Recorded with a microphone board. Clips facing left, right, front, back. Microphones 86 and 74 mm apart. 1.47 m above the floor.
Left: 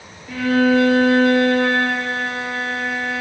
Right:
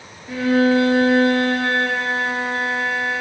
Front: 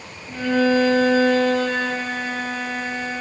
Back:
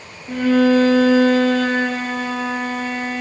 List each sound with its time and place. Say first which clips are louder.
0.3 s a violin: even, back 4 dB; 155° right, 5 m